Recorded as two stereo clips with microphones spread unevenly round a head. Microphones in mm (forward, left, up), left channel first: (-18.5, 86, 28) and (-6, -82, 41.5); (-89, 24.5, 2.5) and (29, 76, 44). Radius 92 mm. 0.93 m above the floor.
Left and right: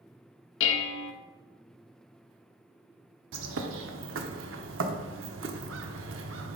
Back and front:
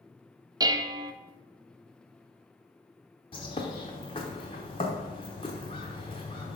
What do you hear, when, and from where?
0.6 s dishes clattering: 85° left, 0.6 m
3.3 s a bird: 85° right, 0.8 m